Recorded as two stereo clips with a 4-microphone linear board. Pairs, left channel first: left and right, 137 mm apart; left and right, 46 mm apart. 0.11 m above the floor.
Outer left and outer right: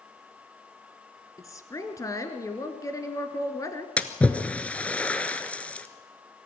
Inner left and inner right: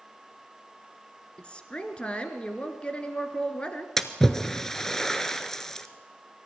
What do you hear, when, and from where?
1.4 s a woman speaking: 25° left (ahead or behind), 1.7 m
4.0 s a splash: 10° left (ahead or behind), 1.1 m